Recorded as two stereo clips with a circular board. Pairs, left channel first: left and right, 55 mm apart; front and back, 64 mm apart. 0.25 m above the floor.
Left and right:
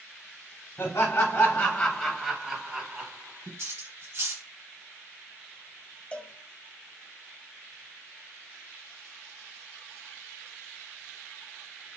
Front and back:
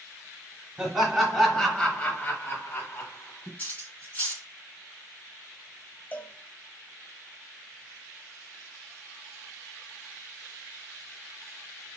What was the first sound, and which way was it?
Laughter, 105° left.